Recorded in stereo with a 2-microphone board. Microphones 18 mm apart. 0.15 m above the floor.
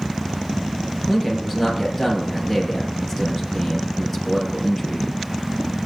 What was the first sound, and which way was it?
A man speaking, 5° left (ahead or behind).